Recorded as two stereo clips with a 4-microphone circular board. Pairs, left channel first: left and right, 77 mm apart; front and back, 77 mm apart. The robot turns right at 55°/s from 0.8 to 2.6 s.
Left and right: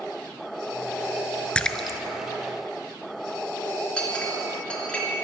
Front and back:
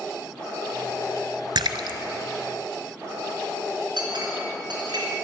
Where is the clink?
165° left, 3.5 m.